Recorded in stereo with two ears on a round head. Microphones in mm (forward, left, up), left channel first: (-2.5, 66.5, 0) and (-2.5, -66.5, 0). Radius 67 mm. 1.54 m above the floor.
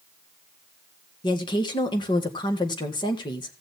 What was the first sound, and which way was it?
A woman speaking, 30° left (ahead or behind).